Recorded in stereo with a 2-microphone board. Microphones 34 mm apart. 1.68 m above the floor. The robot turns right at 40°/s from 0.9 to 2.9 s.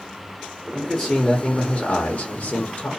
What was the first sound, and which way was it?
A man speaking, straight ahead.